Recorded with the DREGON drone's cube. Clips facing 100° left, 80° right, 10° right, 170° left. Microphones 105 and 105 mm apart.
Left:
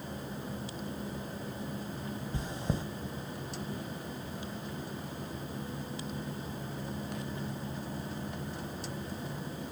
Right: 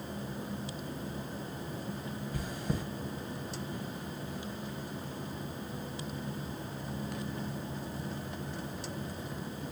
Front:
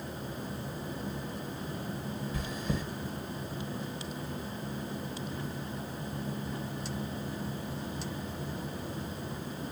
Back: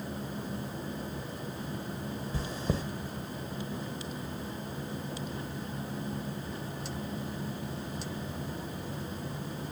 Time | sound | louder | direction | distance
2.3 | chewing | even, back 3 dB | 140° left | 1.2 m